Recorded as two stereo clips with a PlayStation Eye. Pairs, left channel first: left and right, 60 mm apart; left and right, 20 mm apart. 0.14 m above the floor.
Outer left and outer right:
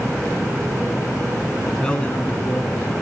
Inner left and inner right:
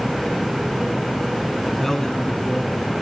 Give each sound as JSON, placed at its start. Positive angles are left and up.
{"t": 1.7, "sound": "a man speaking", "side_deg": 5, "distance_m": 1.2}